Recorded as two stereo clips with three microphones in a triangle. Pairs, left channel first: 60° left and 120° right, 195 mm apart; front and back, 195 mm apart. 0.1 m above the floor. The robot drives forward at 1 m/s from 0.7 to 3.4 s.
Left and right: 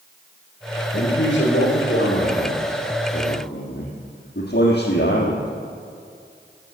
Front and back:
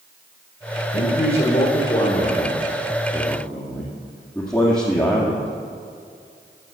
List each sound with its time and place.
0.9 s a man speaking: 40° left, 4 m; by 5.5 s 75° left, 3 m